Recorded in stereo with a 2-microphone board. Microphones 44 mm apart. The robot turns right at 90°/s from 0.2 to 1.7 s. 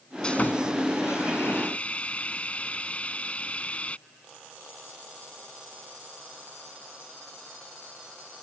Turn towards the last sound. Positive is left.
turn(degrees=145)